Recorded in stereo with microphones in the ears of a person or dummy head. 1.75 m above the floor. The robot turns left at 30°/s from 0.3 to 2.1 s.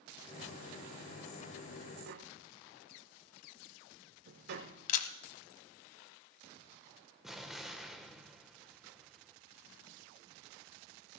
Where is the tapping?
60° right (ahead or behind), 1.5 m.